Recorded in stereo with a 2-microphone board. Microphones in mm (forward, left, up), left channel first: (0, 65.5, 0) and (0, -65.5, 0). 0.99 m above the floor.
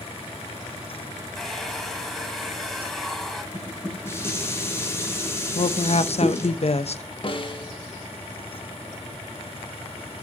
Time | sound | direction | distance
1.4 | a hair dryer | centre (ahead or behind) | 2.5 m
3.5 | dishes clattering | 20° left (ahead or behind) | 2.5 m
5.5 | a woman speaking | 55° left (ahead or behind) | 0.8 m
7.2 | a snare drum | 45° left (ahead or behind) | 1.6 m